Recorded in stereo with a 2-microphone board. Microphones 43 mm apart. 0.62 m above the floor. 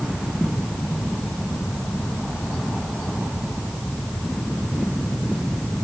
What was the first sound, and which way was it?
Only background noise.